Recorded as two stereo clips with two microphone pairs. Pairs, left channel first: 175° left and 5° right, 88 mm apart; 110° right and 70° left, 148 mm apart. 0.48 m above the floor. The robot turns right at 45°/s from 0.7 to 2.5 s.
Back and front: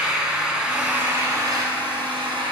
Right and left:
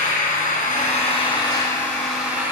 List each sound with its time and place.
0.0 s an engine running: 85° right, 2.0 m; by 2.5 s 5° right, 2.0 m